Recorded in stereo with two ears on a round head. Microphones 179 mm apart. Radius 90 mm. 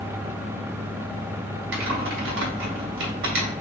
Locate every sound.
1.7 s typing on a keyboard: 70° right (ahead or behind), 2.5 m